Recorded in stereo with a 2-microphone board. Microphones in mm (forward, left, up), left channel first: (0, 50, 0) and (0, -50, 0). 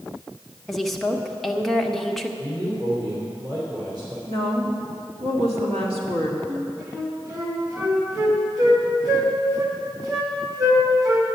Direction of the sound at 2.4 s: 55° right (ahead or behind).